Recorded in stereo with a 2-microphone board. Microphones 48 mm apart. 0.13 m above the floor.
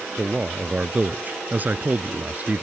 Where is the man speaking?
25° right (ahead or behind); by 2.6 s 35° right (ahead or behind).